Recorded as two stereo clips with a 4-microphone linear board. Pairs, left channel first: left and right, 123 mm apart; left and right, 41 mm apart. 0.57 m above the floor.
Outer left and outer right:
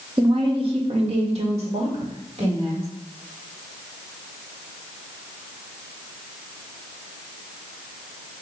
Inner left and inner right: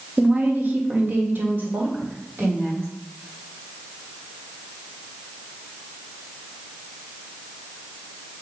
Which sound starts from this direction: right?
A woman speaking, at 0.2 s.